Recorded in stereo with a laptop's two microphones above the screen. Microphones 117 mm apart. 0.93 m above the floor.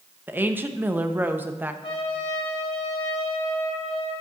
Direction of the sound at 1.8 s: 50° left (ahead or behind).